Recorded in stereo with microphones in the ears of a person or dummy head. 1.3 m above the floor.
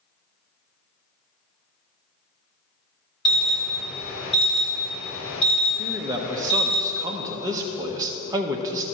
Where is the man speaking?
15° right (ahead or behind), 0.8 m.